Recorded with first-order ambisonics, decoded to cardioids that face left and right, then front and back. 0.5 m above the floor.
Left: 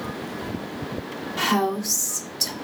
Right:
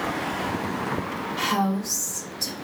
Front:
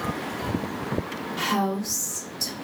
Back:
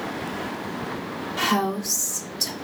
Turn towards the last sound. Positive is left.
turn(degrees=100)